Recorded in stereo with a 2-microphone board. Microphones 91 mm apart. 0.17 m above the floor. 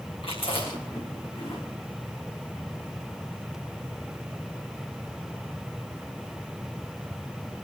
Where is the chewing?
75° left (ahead or behind), 8 m.